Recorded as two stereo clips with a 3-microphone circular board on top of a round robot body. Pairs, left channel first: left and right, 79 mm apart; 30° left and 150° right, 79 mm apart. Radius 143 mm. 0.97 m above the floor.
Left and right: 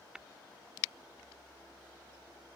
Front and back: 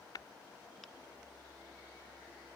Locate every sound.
0.1 s tapping: 5° right